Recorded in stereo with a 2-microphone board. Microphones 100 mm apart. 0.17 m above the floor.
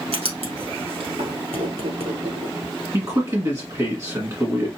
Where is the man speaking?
35° right (ahead or behind), 1.6 m.